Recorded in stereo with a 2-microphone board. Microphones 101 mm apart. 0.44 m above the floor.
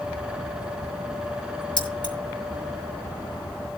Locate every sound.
1.8 s keys jangling: 65° left (ahead or behind), 5 m